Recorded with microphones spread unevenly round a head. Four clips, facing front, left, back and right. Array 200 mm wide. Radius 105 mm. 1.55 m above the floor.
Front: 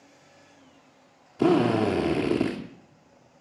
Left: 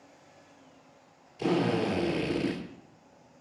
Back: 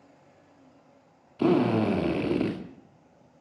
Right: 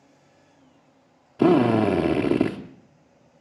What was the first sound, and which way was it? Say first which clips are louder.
A drill: right 10 dB, front 2 dB; 80° right.